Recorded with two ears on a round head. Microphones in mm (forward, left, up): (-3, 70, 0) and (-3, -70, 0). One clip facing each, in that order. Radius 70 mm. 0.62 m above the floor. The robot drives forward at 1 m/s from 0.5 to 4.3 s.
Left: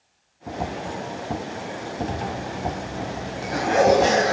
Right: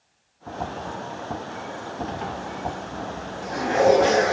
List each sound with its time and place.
2.1 s a zipper: 50° left (ahead or behind), 1.5 m; by 4.3 s 45° left (ahead or behind), 1.8 m